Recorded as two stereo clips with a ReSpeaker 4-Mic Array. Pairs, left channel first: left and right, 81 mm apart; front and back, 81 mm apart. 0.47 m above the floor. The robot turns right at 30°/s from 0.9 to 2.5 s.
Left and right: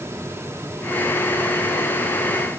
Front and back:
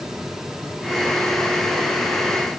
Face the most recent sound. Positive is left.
No sound to turn to.